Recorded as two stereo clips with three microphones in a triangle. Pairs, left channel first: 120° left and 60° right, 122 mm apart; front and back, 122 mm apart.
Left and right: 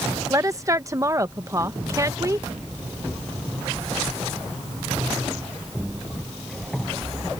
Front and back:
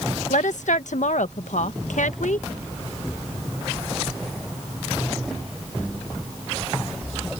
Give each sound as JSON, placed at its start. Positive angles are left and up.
{"t": 0.3, "sound": "a woman speaking", "azimuth_deg": 5}